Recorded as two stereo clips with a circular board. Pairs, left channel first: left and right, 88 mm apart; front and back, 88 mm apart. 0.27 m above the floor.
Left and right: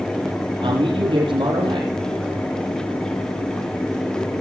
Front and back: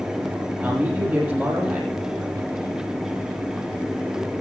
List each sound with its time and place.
0.6 s a man speaking: 110° right, 6.5 m